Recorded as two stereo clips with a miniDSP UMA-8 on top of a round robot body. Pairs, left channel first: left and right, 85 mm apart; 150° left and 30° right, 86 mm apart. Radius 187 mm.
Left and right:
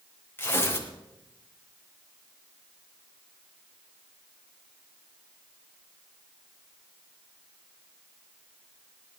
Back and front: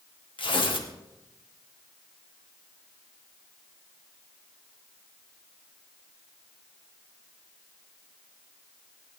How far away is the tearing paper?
About 2.5 m.